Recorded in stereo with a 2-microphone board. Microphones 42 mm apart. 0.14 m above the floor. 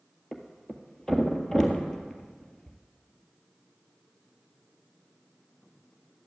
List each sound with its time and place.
0.3 s a thud: 15° left (ahead or behind), 1.7 m